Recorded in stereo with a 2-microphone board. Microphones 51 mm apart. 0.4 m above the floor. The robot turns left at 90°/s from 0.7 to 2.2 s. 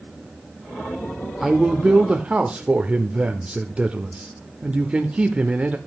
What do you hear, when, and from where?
1.4 s a man speaking: 5° right (ahead or behind), 0.8 m; by 5.8 s 25° right (ahead or behind), 0.8 m